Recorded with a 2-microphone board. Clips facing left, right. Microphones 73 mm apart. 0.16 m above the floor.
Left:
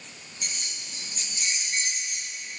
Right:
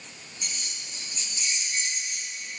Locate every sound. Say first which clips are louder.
0.4 s keys jangling: left 1 dB; 50° left (ahead or behind), 2 m